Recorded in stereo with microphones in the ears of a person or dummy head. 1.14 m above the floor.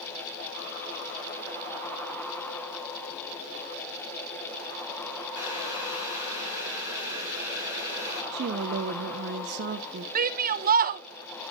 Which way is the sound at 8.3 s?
55° right (ahead or behind).